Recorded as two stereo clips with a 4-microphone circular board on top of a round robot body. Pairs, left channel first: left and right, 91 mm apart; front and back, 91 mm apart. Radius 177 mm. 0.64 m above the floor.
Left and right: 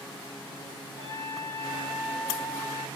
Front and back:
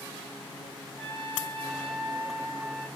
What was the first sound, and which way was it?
A trumpet, 150° left.